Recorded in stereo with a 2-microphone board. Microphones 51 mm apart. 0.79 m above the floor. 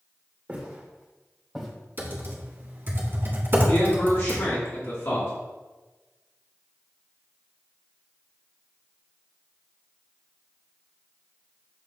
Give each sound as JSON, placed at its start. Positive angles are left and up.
{"t": 0.5, "sound": "footsteps", "side_deg": -25, "distance_m": 2.0}
{"t": 2.0, "sound": "typing on a keyboard", "side_deg": -40, "distance_m": 1.5}
{"t": 3.7, "sound": "a man speaking", "side_deg": 60, "distance_m": 2.0}